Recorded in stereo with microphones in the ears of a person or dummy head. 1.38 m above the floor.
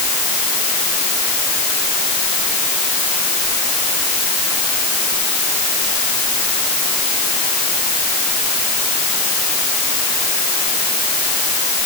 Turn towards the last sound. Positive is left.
No sound to turn to.